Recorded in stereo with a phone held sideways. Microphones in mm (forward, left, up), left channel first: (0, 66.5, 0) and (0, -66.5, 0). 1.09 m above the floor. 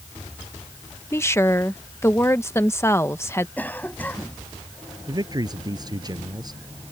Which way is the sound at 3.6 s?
15° left (ahead or behind).